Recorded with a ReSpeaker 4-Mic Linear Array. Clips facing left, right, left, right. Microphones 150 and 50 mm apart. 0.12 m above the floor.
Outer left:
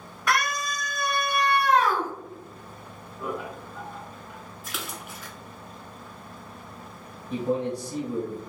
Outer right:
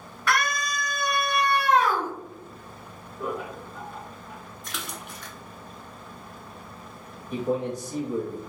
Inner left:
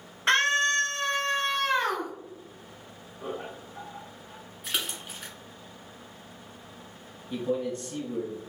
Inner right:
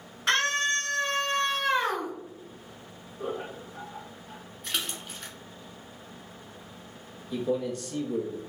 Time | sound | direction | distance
0.3 | a scream | 15° left (ahead or behind) | 1.6 m
3.2 | laughter | 50° right (ahead or behind) | 1.9 m
4.6 | a splash | 5° left (ahead or behind) | 0.7 m
7.3 | a man speaking | 30° left (ahead or behind) | 1.5 m